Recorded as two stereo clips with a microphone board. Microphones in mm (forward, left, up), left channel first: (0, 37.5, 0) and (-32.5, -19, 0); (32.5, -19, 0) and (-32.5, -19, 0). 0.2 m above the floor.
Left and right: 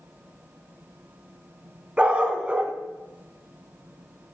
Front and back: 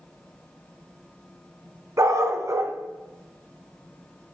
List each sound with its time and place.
2.0 s a dog barking: 170° left, 0.8 m